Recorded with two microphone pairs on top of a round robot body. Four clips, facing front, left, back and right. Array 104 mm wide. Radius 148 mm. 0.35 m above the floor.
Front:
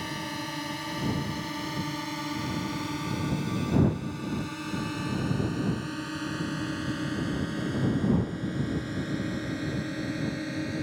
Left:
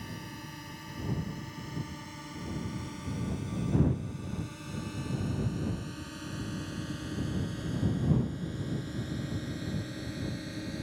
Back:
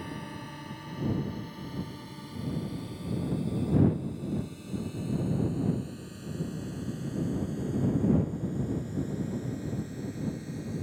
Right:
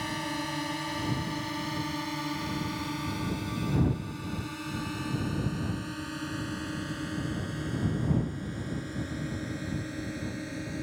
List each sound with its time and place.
0.0 s a drone: 65° right; by 10.8 s 10° right